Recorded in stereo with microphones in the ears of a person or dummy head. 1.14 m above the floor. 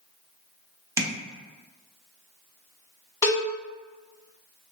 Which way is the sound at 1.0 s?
10° right (ahead or behind).